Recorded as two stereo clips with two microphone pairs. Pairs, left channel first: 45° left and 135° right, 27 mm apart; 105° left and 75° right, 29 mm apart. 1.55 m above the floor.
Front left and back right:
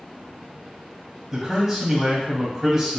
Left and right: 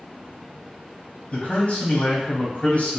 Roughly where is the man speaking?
Behind left.